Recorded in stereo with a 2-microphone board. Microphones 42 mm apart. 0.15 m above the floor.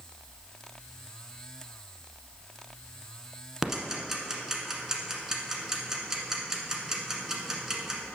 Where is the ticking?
15° right (ahead or behind), 1.3 m.